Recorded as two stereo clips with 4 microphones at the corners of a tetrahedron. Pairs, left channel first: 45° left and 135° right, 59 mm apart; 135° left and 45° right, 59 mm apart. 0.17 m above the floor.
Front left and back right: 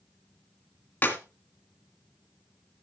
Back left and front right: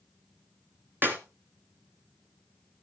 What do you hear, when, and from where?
1.0 s a clap: 5° right, 2 m